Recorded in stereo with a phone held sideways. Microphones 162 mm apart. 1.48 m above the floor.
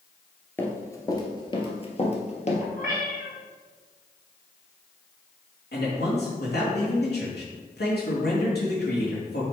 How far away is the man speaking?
About 2.5 m.